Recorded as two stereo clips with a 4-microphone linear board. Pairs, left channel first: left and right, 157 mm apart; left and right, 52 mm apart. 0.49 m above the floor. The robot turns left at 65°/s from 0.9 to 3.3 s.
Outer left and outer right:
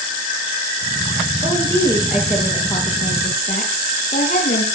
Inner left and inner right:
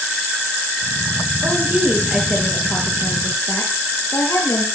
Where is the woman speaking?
125° right, 9.5 m; by 4.7 s 110° left, 9.5 m.